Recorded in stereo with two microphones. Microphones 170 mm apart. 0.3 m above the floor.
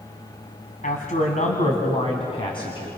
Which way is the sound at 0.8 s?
55° left (ahead or behind).